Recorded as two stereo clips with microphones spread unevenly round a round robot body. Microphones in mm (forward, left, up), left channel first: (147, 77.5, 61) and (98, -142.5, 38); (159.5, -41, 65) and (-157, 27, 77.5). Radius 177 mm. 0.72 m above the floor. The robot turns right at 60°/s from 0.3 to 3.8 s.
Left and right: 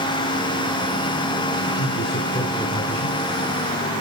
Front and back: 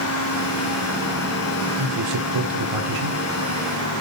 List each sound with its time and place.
1.8 s a man speaking: 115° left, 2.0 m; by 3.2 s 160° right, 2.0 m